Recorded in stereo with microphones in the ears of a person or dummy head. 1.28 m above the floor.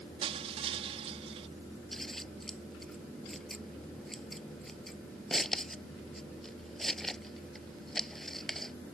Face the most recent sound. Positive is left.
turn(degrees=5)  # may be behind; listen again after turning